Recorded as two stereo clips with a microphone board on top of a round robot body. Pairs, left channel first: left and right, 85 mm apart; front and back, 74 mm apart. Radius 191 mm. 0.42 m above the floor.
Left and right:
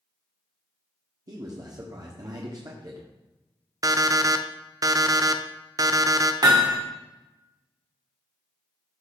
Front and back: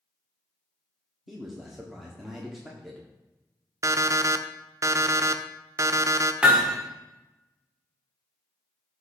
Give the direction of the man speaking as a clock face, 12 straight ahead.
3 o'clock.